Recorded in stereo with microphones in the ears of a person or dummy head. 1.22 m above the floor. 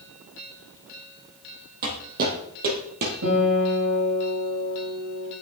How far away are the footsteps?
About 3.5 m.